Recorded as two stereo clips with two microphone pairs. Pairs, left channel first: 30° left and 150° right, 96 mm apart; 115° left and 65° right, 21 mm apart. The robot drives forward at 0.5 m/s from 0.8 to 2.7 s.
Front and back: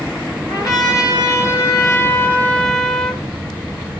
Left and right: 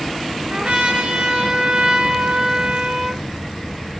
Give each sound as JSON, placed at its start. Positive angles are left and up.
{"t": 0.5, "sound": "a trumpet", "azimuth_deg": -10, "distance_m": 1.3}